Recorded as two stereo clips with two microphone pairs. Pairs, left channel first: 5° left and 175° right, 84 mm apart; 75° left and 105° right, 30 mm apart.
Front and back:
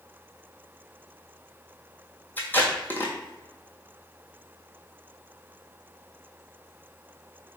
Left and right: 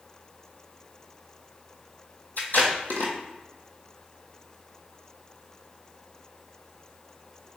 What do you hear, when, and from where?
2.4 s tape being pulled: 75° left, 1.2 m